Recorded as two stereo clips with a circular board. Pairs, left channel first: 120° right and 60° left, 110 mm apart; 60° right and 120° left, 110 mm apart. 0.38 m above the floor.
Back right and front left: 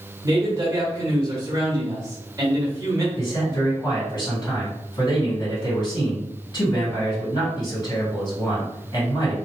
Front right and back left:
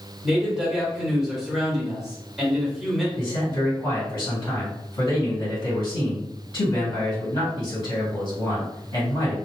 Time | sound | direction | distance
0.2 | a man speaking | 35° left | 1.3 m
3.2 | a man speaking | 95° right | 2.0 m